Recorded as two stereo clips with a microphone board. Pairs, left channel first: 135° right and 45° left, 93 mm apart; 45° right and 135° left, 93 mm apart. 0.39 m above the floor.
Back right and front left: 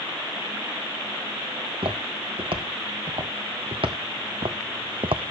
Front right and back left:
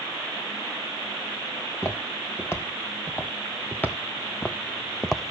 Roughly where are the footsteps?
Ahead.